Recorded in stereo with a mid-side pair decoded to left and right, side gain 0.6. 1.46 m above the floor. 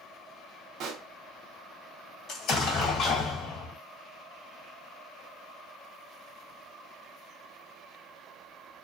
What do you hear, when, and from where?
0.8 s a pop: 55° right, 0.7 m
2.3 s an explosion: 60° left, 1.3 m